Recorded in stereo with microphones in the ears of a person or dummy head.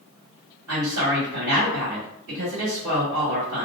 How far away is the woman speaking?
About 1.7 m.